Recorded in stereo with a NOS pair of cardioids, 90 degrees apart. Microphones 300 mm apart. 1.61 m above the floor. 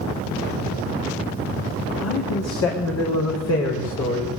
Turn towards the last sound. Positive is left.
turn(degrees=55)